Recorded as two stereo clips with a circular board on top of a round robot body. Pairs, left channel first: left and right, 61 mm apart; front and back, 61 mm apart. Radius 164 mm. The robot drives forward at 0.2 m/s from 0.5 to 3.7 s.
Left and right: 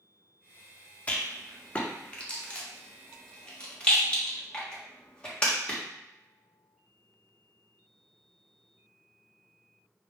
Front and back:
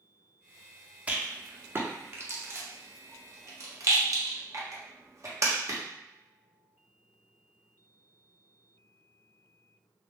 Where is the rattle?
135° left, 0.7 m; by 5.8 s 160° left, 1.0 m.